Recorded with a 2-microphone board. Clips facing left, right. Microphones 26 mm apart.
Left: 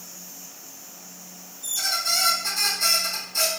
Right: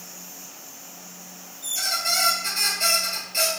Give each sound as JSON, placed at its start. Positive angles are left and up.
{"t": 1.6, "sound": "a squeak", "side_deg": -65, "distance_m": 1.7}